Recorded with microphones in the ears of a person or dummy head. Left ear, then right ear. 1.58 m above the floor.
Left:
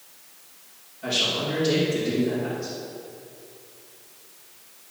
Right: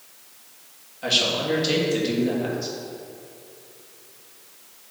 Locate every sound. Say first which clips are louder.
1.0 s a man speaking: right 3 dB; 40° right (ahead or behind), 2.5 m